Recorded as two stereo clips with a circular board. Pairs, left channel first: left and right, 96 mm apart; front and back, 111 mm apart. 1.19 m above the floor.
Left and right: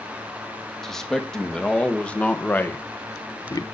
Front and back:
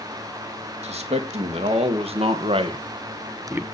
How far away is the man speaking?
About 2 m.